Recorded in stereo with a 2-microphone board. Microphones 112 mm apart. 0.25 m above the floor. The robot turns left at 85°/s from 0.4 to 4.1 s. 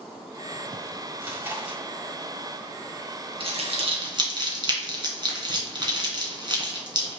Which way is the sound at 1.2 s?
20° right (ahead or behind).